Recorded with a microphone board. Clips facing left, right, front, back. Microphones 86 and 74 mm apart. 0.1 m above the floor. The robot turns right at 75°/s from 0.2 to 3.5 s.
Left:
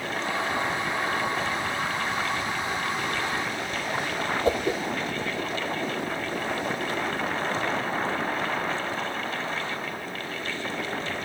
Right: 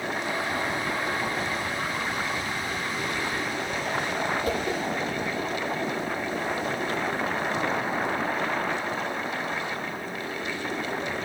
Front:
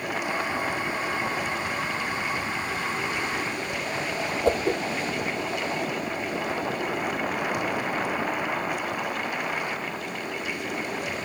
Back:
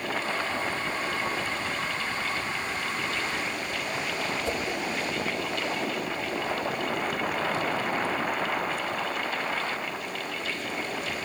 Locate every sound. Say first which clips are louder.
4.5 s a whoosh: left 3 dB, front 7 dB; 30° left, 1.5 m